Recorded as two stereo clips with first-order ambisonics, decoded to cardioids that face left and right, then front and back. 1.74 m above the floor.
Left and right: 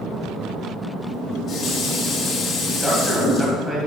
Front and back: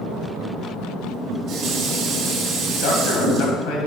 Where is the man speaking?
10° right, 1.6 m.